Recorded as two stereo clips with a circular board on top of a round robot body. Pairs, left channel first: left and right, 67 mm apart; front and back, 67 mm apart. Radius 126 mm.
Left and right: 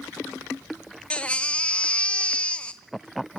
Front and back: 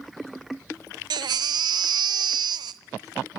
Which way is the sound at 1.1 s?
165° left.